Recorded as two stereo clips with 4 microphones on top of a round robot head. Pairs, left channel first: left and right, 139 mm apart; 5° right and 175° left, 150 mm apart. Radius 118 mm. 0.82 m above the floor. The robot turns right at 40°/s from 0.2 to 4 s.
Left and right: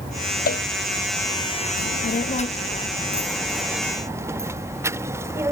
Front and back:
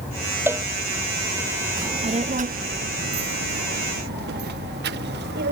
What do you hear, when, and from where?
0.5 s a cowbell: 100° left; by 0.6 s 105° left
1.8 s a child speaking: 110° left; by 5.5 s 165° right